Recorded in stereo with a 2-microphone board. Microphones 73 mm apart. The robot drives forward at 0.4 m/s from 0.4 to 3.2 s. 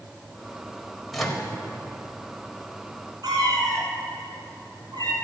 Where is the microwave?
Centre (ahead or behind), 1.3 m.